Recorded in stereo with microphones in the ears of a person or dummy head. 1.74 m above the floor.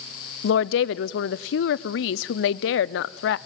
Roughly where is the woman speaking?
Left.